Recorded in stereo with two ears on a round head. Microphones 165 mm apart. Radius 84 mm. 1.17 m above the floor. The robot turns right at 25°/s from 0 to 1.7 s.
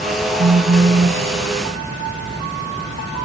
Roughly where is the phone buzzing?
Right.